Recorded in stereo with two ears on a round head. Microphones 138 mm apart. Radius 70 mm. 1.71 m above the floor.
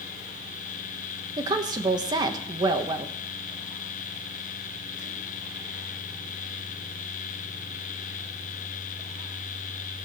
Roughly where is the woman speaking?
Right.